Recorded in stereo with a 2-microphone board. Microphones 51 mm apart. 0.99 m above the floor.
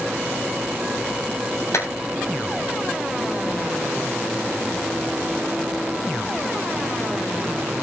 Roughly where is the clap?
Left.